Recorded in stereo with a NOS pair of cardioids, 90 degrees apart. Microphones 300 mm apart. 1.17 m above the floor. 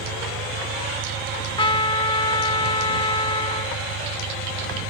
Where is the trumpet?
15° left.